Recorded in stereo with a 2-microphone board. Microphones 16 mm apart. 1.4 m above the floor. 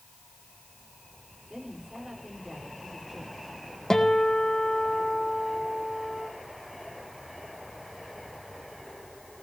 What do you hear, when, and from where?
1.5 s a woman speaking: 25° right (ahead or behind), 5.5 m
3.9 s a guitar: 35° left (ahead or behind), 3.5 m